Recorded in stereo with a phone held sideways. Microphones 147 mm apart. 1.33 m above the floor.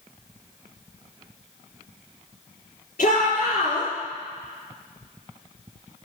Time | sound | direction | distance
3.0 | a shout | 60° left (ahead or behind) | 4 m